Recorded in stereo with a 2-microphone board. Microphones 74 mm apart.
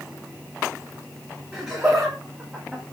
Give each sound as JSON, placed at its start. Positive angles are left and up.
{"t": 1.5, "sound": "laughter", "side_deg": -30, "distance_m": 2.0}